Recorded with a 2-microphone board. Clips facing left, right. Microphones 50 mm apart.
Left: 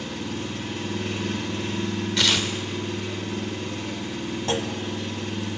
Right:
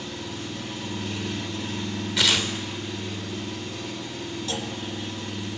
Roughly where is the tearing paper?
Centre.